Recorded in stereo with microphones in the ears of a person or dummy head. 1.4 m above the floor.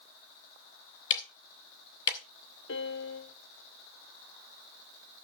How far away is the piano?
About 0.8 m.